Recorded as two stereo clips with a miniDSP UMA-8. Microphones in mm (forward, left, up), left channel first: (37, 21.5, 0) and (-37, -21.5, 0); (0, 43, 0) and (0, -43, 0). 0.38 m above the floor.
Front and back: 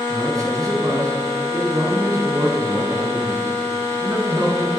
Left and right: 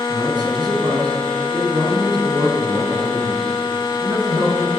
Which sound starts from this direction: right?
A man speaking, at 0.1 s.